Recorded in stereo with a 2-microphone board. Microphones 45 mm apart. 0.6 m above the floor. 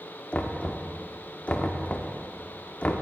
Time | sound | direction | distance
0.3 | knocking | 30° left (ahead or behind) | 0.6 m